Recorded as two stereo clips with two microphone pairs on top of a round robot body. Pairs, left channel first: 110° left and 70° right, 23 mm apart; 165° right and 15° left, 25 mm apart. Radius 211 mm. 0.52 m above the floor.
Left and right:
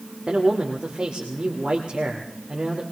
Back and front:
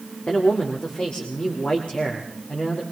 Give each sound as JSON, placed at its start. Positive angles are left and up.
{"t": 0.3, "sound": "a man speaking", "azimuth_deg": -115, "distance_m": 2.5}